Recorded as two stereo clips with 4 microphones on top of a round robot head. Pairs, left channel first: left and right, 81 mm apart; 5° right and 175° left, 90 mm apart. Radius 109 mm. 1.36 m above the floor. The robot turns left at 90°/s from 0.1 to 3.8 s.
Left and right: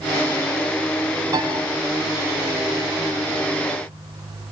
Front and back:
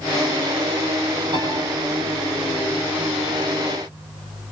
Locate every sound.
1.3 s a piano: 135° right, 8.5 m; by 1.5 s 150° right, 8.5 m